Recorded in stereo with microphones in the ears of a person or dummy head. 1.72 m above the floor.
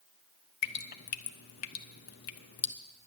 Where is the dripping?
45° left (ahead or behind), 0.5 m.